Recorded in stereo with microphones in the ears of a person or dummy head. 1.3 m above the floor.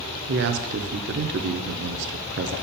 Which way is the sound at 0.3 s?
60° right (ahead or behind).